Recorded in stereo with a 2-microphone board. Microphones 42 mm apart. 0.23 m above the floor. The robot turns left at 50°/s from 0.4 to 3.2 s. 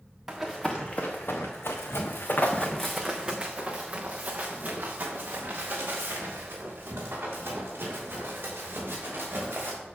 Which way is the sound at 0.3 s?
10° right (ahead or behind).